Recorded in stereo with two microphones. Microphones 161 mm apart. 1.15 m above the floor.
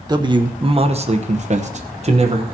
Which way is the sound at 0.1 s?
25° right (ahead or behind).